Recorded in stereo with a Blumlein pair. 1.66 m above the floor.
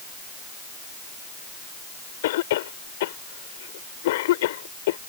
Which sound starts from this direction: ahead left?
A cough, at 2.2 s.